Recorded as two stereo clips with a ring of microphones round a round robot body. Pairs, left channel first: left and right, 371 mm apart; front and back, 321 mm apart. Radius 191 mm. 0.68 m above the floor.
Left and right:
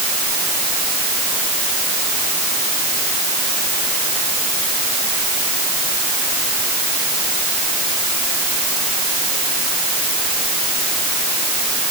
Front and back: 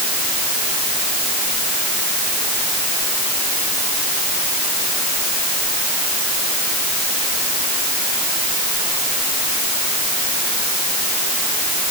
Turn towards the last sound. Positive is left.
No sound to turn to.